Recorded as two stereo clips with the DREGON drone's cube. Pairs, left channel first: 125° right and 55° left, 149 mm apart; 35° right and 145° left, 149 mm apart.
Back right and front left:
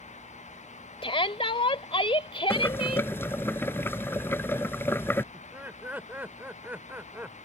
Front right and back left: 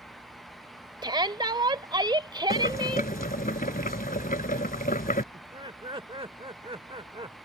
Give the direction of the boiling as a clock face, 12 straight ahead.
2 o'clock.